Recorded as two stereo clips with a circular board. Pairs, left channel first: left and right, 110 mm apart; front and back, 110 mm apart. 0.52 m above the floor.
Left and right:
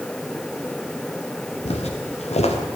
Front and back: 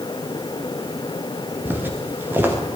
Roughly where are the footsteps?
Left.